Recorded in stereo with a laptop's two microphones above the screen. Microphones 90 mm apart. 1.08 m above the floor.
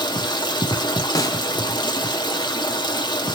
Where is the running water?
55° left (ahead or behind), 0.9 m.